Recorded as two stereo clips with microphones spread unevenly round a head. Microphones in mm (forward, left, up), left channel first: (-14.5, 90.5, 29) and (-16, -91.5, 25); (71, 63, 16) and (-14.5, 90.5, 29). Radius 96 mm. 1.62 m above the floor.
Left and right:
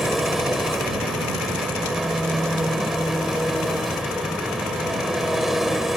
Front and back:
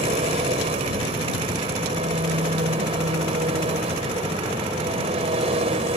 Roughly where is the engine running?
Behind.